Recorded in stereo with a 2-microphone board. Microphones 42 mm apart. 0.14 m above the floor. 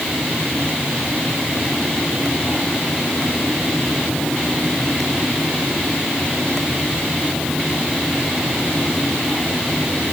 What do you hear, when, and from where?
Only background noise.